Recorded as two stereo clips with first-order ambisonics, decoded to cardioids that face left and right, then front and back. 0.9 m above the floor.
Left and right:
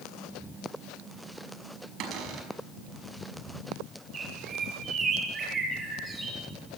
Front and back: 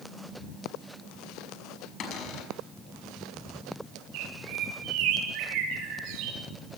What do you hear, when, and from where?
2.0 s a cupboard door: 50° right, 5 m
4.1 s a bird: 155° right, 8 m